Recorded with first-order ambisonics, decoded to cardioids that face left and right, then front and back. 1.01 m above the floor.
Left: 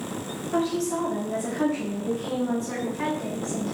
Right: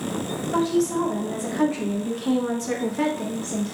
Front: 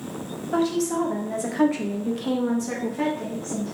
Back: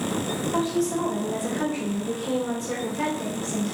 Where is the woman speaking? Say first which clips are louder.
Right 3 dB, front 3 dB; 5° right, 1.4 m; by 3.7 s 115° right, 0.9 m.